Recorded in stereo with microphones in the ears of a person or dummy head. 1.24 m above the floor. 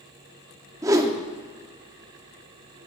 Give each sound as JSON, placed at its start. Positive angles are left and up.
{"t": 0.8, "sound": "a whoosh", "side_deg": -15, "distance_m": 0.5}